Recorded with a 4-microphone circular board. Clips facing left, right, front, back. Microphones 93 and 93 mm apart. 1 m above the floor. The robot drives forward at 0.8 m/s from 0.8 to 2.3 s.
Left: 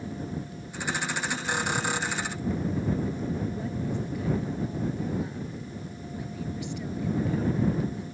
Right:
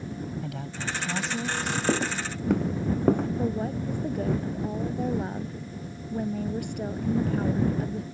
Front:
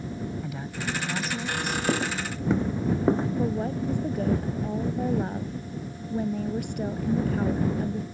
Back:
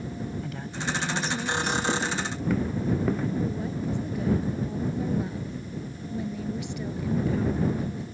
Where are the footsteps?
70° right; by 3.3 s 60° right.